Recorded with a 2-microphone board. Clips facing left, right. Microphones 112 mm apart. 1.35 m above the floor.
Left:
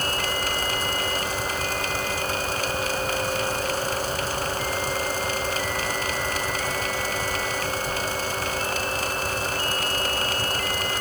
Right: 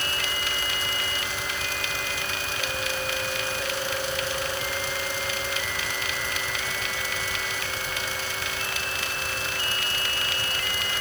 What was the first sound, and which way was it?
Only background noise.